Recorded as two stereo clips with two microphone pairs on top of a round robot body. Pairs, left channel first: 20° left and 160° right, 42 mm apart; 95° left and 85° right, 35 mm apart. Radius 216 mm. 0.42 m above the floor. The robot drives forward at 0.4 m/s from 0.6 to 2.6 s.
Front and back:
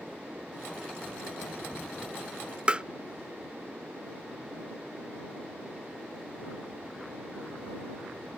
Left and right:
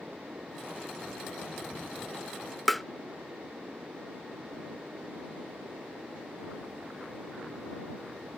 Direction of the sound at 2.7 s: 175° right.